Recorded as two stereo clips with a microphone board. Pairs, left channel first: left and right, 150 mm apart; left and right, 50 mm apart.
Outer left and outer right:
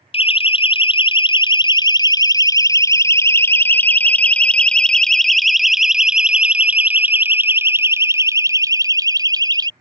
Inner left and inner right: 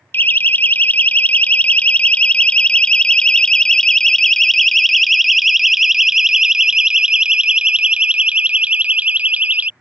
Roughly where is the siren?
Left.